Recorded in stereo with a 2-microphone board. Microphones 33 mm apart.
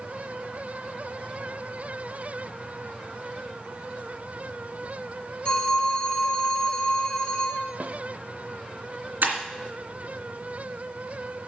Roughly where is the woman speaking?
No woman speaking in this recording.